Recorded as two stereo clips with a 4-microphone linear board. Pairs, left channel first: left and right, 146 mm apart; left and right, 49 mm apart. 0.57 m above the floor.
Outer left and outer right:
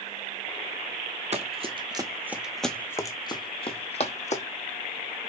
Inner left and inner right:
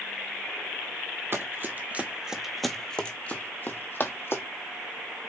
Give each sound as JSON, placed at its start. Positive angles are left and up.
{"t": 1.3, "sound": "running footsteps", "side_deg": -45, "distance_m": 0.9}